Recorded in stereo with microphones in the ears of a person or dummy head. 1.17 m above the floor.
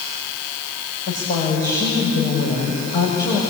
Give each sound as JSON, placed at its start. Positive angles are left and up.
{"t": 1.1, "sound": "a woman speaking", "side_deg": 35, "distance_m": 6.0}